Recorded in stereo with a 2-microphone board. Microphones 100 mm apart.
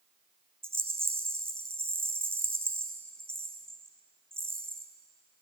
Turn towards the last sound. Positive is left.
turn(degrees=-20)  # may be behind; listen again after turning